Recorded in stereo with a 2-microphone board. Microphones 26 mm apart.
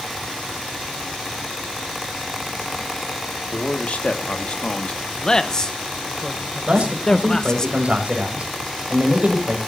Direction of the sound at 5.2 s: 25° left (ahead or behind).